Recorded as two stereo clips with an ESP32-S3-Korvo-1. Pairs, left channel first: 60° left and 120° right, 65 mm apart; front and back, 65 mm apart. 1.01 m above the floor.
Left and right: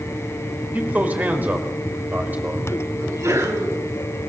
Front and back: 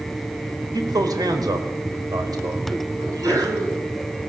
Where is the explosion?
I don't hear an explosion.